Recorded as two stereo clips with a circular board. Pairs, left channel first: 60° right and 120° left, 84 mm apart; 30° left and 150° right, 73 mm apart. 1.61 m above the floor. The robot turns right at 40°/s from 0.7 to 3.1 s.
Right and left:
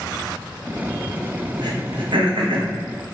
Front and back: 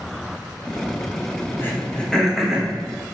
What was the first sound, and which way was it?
Throat clearing, 90° left.